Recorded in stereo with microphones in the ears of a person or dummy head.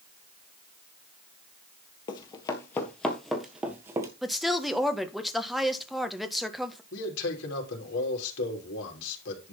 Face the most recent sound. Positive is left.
turn(degrees=65)  # may be behind; listen again after turning